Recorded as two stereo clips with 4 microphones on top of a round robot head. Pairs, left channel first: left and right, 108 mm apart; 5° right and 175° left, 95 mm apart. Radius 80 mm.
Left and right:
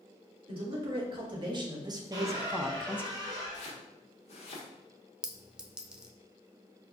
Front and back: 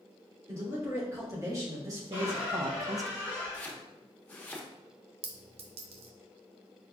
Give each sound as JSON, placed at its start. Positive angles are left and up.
{"t": 0.5, "sound": "a man speaking", "azimuth_deg": -125, "distance_m": 2.0}
{"t": 2.1, "sound": "a squeak", "azimuth_deg": -135, "distance_m": 1.6}
{"t": 3.5, "sound": "chopping", "azimuth_deg": 65, "distance_m": 1.1}
{"t": 5.2, "sound": "a clink", "azimuth_deg": -175, "distance_m": 0.6}